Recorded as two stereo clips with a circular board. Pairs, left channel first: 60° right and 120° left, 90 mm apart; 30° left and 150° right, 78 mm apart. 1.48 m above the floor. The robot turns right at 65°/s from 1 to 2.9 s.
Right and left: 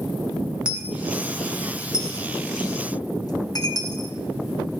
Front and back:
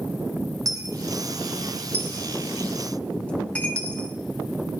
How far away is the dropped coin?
About 1.2 m.